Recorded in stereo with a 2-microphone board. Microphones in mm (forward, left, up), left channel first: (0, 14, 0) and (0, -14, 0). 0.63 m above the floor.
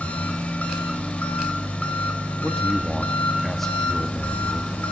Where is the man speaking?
5° left (ahead or behind), 0.6 m.